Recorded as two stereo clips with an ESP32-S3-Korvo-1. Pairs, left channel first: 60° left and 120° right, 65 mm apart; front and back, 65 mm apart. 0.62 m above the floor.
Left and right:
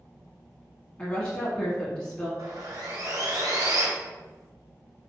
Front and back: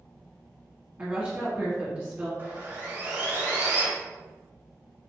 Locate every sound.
1.0 s a woman speaking: 120° left, 1.1 m
2.4 s sawing: 120° right, 1.8 m